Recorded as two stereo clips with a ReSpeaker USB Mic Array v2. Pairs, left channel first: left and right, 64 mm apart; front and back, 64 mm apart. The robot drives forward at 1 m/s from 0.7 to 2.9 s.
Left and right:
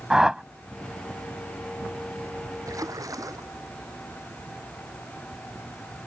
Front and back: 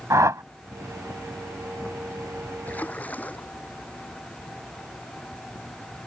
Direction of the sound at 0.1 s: 170° right.